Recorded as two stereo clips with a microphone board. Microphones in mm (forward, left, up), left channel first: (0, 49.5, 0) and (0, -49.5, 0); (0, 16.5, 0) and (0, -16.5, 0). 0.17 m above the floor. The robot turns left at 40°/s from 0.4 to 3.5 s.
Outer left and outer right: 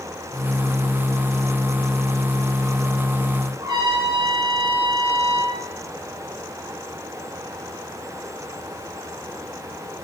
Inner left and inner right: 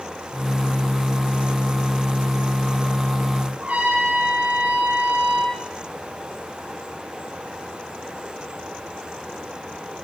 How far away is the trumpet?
About 4.5 m.